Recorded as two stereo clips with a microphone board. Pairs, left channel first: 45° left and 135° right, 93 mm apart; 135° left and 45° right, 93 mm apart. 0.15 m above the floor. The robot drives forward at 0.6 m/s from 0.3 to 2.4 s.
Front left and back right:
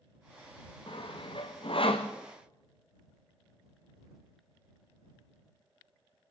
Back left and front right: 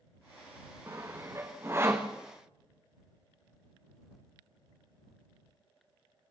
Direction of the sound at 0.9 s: 15° left.